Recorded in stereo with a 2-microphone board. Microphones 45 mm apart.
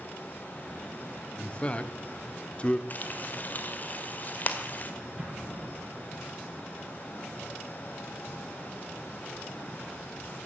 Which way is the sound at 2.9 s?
40° left (ahead or behind).